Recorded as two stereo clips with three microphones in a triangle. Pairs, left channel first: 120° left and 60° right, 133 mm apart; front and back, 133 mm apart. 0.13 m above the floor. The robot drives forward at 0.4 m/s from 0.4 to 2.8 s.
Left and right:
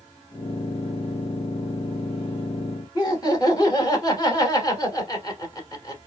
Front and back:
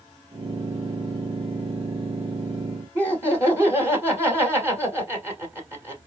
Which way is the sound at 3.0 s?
125° left.